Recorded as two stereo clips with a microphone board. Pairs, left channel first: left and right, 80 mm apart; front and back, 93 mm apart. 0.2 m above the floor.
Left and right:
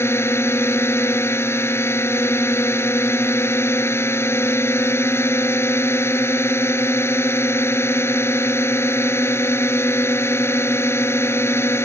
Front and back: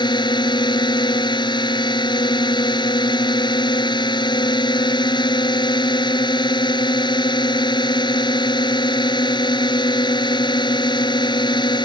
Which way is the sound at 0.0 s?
30° left.